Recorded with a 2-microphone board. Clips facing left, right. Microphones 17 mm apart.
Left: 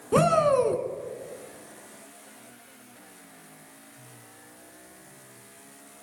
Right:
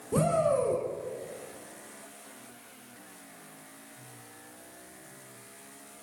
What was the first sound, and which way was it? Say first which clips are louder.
A shout: left 5 dB; 60° left (ahead or behind).